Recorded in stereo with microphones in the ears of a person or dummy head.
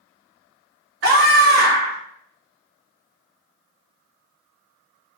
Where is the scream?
75° right (ahead or behind), 2 m.